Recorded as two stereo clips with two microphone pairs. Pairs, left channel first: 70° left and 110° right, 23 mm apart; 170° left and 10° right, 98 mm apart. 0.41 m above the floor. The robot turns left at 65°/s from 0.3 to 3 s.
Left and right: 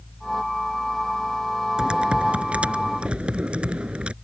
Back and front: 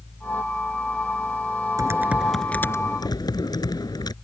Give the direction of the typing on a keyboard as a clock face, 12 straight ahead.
2 o'clock.